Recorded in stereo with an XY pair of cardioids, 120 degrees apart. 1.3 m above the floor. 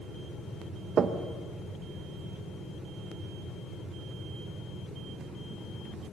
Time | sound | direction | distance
1.0 | knocking | 45° right | 1.2 m